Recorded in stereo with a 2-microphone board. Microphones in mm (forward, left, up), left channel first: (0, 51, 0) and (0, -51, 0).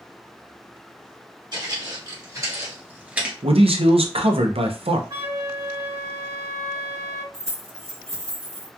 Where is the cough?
I don't hear a cough.